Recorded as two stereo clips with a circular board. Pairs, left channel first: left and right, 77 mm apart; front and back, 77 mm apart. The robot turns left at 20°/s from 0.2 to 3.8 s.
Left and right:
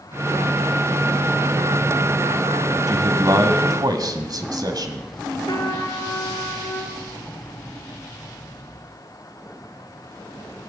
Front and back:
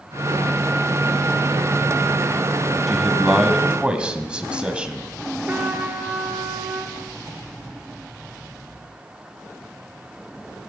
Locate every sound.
2.9 s a man speaking: 90° right, 1.7 m; by 5.1 s 105° right, 1.7 m
5.5 s a trumpet: 115° left, 2 m